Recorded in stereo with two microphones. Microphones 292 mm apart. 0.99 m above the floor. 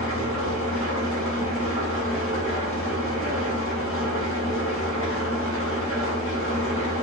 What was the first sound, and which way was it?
An engine running, 45° left (ahead or behind).